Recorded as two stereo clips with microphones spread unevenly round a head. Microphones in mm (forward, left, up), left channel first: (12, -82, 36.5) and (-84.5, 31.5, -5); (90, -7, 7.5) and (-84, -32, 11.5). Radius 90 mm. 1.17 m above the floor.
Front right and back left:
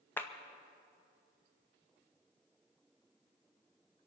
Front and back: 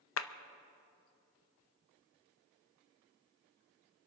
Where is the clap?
25° left, 0.6 m.